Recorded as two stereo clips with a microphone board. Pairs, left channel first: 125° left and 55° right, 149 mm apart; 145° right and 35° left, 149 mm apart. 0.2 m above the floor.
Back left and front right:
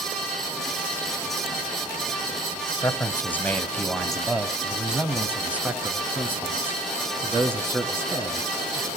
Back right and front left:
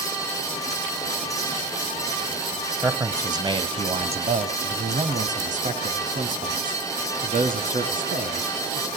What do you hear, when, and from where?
2.8 s a man speaking: 90° left, 1.0 m; by 8.9 s 15° left, 3.5 m